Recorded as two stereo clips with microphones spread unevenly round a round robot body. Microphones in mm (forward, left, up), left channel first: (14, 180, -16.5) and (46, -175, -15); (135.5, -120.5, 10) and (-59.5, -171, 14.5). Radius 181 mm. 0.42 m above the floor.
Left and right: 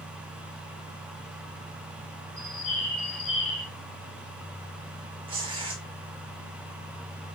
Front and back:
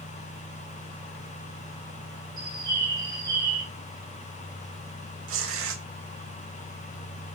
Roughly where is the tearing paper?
Behind.